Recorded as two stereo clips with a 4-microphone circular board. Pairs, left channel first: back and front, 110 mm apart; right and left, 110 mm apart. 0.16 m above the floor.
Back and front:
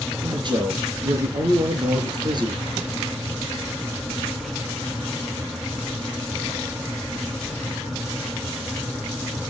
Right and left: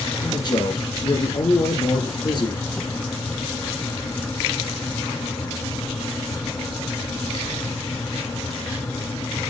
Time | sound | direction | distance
0.2 | a man speaking | 45° right | 3 m